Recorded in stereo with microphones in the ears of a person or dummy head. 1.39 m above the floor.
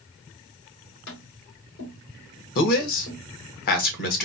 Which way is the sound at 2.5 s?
50° left (ahead or behind).